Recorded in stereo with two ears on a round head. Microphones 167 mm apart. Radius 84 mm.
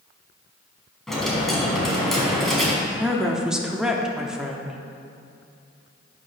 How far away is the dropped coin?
About 1.9 m.